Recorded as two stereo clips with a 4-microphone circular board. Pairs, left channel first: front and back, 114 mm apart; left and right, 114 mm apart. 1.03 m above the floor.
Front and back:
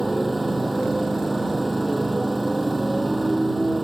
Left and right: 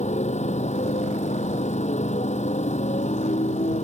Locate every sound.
0.0 s a motorcycle: 90° left